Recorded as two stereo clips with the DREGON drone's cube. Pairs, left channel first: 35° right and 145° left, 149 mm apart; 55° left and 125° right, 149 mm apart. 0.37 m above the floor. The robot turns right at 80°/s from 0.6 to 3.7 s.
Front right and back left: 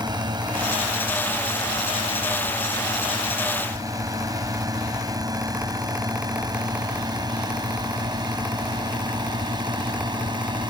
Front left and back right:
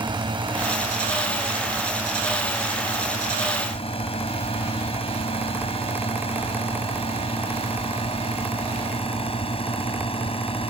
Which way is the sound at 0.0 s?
165° right.